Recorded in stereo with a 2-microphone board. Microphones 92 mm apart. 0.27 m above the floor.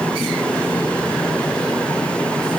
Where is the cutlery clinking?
No cutlery clinking in this recording.